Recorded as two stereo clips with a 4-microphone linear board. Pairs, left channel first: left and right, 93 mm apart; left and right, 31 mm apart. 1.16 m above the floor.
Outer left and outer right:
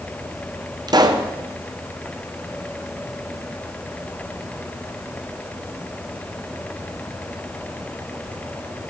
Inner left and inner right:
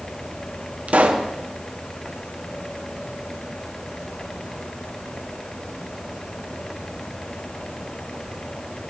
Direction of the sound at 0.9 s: 45° right (ahead or behind).